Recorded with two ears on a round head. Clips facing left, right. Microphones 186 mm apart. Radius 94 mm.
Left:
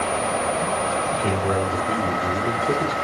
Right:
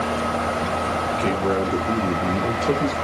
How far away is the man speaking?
About 1.9 m.